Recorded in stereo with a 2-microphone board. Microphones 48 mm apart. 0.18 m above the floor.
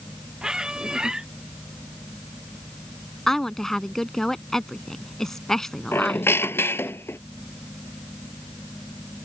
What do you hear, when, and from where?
0.4 s a squeak: 15° right (ahead or behind)
3.3 s a woman speaking: 10° left (ahead or behind)
5.9 s a squeak: 55° left (ahead or behind)